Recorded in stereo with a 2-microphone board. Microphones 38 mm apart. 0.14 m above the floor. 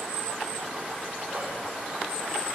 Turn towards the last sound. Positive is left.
turn(degrees=-65)  # may be behind; listen again after turning